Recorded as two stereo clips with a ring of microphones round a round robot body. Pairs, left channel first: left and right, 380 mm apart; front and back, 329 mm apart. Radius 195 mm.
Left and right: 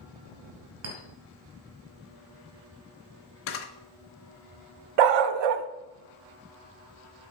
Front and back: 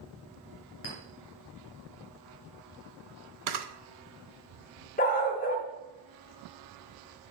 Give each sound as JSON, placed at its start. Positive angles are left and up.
{"t": 0.8, "sound": "a clink", "azimuth_deg": -50, "distance_m": 2.5}
{"t": 3.5, "sound": "a camera shutter", "azimuth_deg": 150, "distance_m": 1.0}
{"t": 5.0, "sound": "a dog barking", "azimuth_deg": -70, "distance_m": 0.6}